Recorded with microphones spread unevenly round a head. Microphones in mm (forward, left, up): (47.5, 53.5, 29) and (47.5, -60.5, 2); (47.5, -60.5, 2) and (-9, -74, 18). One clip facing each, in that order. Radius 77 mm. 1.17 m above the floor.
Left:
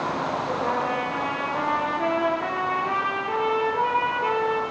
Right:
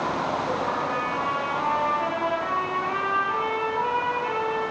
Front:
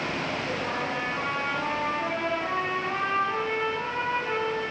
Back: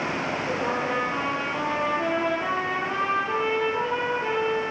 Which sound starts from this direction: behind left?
A trumpet, at 0.6 s.